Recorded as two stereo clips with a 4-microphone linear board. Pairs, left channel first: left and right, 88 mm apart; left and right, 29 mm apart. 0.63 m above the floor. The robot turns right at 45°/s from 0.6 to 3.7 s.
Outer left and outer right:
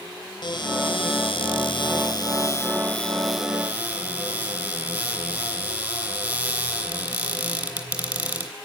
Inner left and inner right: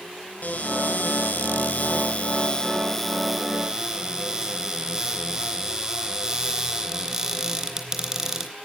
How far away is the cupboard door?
About 3.5 m.